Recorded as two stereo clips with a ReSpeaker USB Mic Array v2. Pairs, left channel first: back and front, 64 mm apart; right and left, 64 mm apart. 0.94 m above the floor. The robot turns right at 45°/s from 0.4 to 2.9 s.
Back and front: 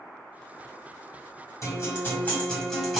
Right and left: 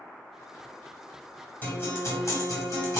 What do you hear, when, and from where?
1.6 s a guitar: 150° right, 1.4 m; by 3.0 s 90° right, 1.4 m